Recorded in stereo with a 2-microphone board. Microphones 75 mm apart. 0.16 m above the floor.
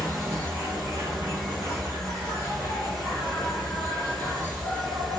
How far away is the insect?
About 1.1 m.